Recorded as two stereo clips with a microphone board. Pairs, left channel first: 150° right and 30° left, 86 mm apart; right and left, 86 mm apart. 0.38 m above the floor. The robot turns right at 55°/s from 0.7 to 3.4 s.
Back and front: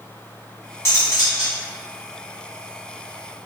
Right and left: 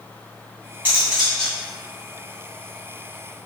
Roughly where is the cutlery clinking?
Behind left.